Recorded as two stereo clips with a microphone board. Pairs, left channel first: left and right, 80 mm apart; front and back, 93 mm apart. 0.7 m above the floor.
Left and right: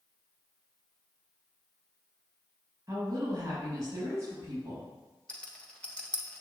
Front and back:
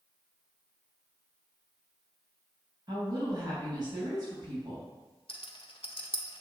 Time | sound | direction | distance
2.9 | a woman speaking | 140° right | 4 m
5.3 | a rattle | 15° left | 1.3 m